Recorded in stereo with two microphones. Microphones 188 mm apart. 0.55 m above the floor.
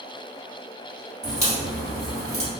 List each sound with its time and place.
1.2 s a crack: 35° left (ahead or behind), 2.0 m